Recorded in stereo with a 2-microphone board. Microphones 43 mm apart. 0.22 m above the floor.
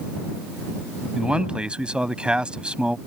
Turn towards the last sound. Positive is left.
turn(degrees=-25)  # may be behind; listen again after turning